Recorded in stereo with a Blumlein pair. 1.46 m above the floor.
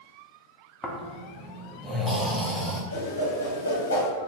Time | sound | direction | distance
0.8 | snoring | straight ahead | 0.6 m
2.9 | a whoosh | 70° left | 0.9 m